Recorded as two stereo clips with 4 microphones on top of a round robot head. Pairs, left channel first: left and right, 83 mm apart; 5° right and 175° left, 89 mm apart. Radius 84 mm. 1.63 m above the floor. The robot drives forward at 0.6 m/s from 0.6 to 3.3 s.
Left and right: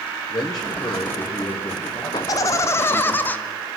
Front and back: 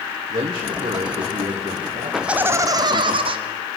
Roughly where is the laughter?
Left.